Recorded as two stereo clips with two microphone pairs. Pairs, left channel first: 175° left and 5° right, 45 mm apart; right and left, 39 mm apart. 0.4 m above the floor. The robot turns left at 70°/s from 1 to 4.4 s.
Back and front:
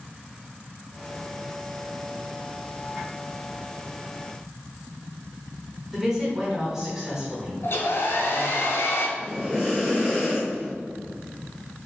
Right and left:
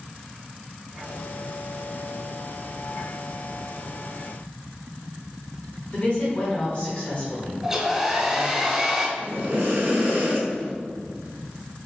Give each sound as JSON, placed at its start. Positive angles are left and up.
{"t": 5.9, "sound": "a woman speaking", "azimuth_deg": -75, "distance_m": 1.3}
{"t": 7.6, "sound": "a hair dryer", "azimuth_deg": 165, "distance_m": 0.7}
{"t": 9.2, "sound": "breathing", "azimuth_deg": 75, "distance_m": 1.8}